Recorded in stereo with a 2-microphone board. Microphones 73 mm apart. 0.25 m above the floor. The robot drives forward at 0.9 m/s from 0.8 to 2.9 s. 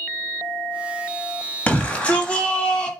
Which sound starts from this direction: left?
A shout, at 1.7 s.